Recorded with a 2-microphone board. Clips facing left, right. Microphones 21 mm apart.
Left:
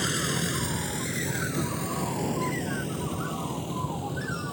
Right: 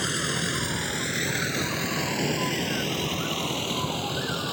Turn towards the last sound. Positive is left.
turn(degrees=-65)  # may be behind; listen again after turning